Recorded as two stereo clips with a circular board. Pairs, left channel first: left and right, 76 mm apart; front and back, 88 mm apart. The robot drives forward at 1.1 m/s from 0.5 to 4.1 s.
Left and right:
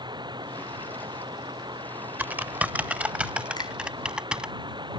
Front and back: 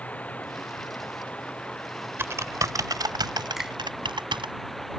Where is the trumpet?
No trumpet in this recording.